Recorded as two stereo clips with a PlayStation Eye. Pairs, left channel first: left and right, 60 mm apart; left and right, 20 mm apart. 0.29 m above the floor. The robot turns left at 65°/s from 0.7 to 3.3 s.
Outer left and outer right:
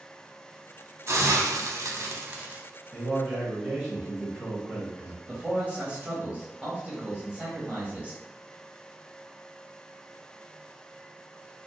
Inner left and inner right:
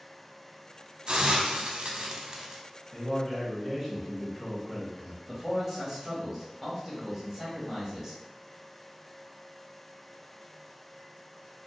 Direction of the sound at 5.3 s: 25° right (ahead or behind).